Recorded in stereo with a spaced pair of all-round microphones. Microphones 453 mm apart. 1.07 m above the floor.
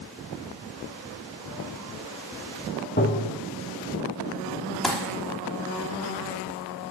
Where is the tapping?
25° left (ahead or behind), 1.7 m.